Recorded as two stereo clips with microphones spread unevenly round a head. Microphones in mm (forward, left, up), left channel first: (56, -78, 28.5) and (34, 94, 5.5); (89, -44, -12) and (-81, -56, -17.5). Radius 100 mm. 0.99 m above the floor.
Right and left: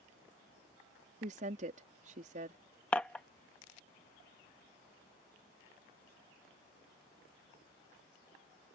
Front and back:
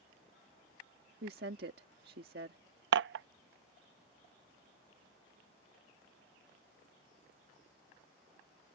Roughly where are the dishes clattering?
Behind.